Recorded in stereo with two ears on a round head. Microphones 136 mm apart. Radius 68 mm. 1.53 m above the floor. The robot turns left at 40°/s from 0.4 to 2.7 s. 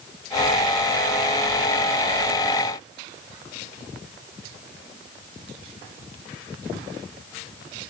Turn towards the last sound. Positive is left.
No sound to turn to.